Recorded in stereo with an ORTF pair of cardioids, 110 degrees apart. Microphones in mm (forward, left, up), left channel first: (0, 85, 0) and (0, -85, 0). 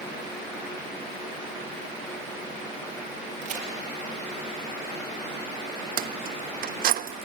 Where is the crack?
45° right, 5.5 m.